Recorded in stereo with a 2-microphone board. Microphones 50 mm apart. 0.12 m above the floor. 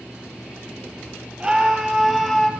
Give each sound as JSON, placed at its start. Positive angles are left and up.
{"t": 1.4, "sound": "a scream", "side_deg": -20, "distance_m": 4.0}